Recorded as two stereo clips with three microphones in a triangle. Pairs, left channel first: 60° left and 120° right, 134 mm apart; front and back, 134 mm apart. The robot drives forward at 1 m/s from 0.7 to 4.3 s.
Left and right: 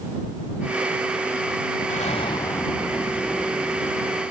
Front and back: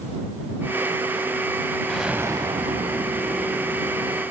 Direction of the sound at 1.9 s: 85° left.